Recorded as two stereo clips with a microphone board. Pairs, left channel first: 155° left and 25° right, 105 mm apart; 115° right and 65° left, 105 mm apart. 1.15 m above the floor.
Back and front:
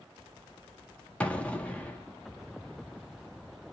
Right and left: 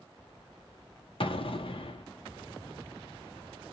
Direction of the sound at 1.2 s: 125° right.